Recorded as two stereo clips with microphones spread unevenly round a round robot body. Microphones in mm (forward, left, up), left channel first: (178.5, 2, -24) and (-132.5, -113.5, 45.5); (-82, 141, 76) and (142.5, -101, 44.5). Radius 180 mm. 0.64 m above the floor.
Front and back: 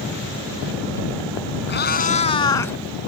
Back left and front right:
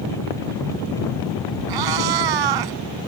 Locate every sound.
1.7 s a cat meowing: 40° right; by 2.8 s 65° right